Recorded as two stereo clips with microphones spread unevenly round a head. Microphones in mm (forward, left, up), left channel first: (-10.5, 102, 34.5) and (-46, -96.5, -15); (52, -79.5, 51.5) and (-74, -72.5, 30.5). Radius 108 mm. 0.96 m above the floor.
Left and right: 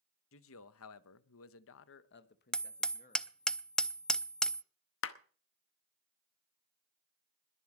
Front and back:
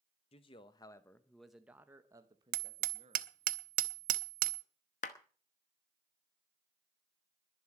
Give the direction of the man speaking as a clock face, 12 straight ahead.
10 o'clock.